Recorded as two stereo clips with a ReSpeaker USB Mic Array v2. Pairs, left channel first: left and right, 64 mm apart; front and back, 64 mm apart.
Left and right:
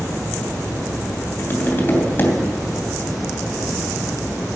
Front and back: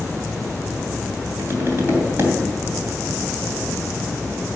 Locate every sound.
1.4 s tapping: 140° left, 3 m